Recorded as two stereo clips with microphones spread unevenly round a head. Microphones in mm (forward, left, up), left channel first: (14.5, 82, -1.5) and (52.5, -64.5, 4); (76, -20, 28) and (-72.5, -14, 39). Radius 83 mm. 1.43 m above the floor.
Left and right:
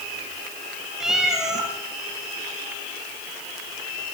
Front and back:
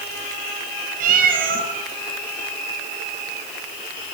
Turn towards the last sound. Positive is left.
turn(degrees=-160)